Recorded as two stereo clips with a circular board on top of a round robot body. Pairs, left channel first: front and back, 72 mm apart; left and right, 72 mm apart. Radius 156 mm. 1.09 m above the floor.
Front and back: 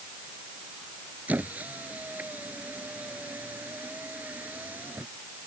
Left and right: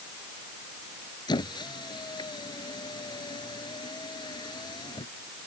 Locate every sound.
1.3 s a squeak: 110° left